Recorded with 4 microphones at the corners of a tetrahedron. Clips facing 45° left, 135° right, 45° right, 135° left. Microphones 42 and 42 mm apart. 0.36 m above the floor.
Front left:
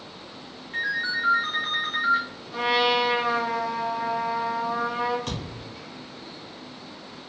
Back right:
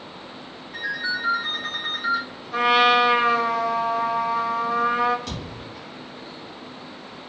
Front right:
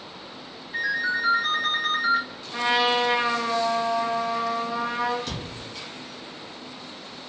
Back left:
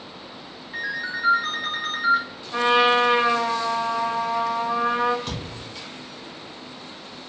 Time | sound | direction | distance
0.7 | a ringtone | 75° left | 1.5 m
2.5 | a trumpet | 165° right | 0.7 m
5.3 | a thud | 75° left | 1.7 m